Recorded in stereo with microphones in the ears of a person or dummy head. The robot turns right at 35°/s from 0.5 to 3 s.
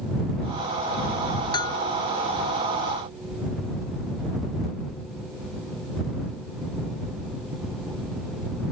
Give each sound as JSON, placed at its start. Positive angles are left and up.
{"t": 1.5, "sound": "a bell", "side_deg": 25}